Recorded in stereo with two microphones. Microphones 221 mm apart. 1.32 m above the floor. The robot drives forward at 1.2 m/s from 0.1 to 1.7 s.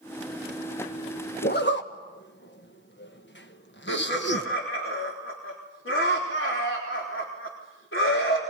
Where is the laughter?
65° left (ahead or behind), 4 m.